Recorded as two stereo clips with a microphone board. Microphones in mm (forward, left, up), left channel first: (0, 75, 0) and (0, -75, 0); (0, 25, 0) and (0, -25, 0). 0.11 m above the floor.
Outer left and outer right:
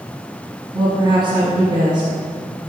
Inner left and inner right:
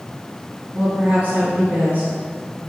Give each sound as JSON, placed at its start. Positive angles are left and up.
{"t": 0.7, "sound": "a woman speaking", "side_deg": -30, "distance_m": 1.8}